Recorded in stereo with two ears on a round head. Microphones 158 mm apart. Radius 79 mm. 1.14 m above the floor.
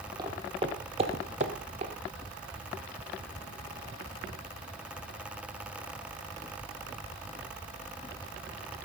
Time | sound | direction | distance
0.2 | footsteps | 25° right (ahead or behind) | 1.7 m